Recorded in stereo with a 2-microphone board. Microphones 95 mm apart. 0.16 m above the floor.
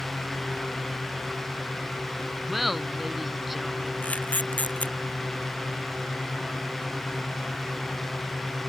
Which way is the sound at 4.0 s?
15° left (ahead or behind).